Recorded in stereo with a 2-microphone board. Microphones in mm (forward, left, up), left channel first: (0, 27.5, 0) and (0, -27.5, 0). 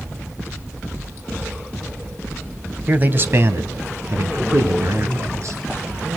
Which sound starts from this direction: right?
A man speaking, at 2.9 s.